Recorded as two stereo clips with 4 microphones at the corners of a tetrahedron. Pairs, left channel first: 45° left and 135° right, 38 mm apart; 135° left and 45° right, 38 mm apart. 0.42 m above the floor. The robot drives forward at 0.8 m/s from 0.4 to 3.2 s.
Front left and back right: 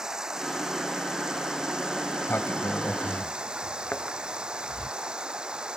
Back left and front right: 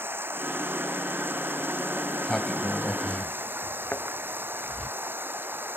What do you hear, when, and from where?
0.0 s running water: 60° right; by 5.8 s 65° right
2.1 s a sliding door: 55° left; by 4.9 s 80° left
3.9 s a thud: 95° left